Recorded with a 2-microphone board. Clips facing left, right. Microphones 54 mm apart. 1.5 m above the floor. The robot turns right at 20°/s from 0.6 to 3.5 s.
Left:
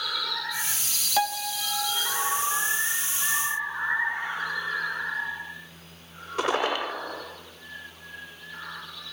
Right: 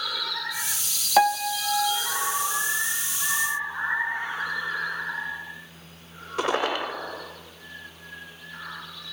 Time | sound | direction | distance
1.2 | a piano | 35° right (ahead or behind) | 0.9 m